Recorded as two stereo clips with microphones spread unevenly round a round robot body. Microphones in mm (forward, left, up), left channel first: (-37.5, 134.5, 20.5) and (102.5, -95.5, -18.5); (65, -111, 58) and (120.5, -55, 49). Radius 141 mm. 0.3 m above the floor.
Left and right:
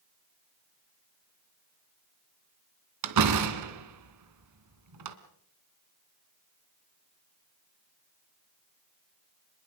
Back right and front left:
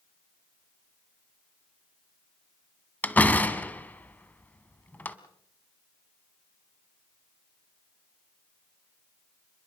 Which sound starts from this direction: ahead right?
A door slam, at 3.0 s.